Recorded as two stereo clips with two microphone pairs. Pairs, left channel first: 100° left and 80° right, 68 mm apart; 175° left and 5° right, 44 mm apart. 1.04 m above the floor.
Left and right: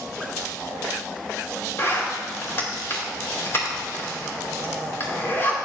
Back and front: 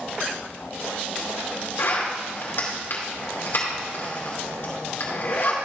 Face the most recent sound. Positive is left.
turn(degrees=150)